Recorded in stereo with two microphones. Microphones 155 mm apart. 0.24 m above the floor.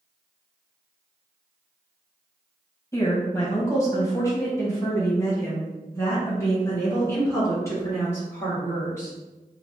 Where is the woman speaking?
20° left (ahead or behind), 1.3 m; by 9.1 s 15° left (ahead or behind), 3.5 m.